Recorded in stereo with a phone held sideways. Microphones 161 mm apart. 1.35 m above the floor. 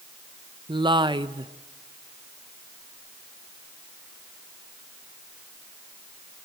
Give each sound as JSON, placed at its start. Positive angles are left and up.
{"t": 0.7, "sound": "a woman speaking", "side_deg": -30, "distance_m": 0.9}